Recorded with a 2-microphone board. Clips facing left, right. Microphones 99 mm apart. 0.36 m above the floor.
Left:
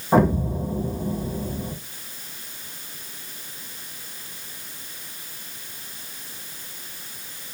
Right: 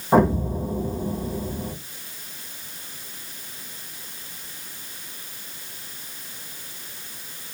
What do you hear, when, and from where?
0.1 s an explosion: centre (ahead or behind), 2 m